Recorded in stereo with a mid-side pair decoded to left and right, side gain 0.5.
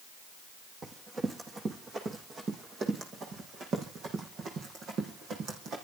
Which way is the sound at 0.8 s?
35° right.